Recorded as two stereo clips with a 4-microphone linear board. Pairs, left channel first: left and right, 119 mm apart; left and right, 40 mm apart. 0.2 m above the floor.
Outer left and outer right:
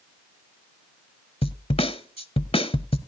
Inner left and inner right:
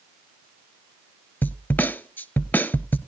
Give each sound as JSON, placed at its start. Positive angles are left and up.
{"t": 1.4, "sound": "a snare drum", "side_deg": 55, "distance_m": 0.6}